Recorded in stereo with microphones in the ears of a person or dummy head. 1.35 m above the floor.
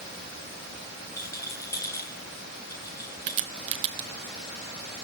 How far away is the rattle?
About 2 m.